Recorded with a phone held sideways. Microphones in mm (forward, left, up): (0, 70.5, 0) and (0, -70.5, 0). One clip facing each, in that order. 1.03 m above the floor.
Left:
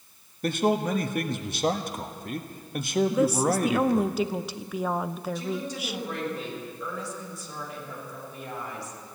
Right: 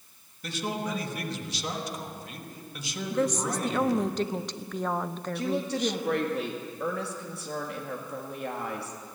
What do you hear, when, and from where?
0.4 s a man speaking: 60° left (ahead or behind), 1.2 m
3.1 s a woman speaking: 10° left (ahead or behind), 0.5 m
5.3 s a woman speaking: 75° right (ahead or behind), 1.9 m